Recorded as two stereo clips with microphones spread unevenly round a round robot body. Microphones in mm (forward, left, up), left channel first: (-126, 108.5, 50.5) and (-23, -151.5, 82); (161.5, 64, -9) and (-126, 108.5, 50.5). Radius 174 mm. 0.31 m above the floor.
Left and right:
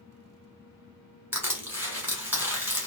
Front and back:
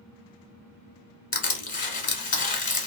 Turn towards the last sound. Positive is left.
turn(degrees=20)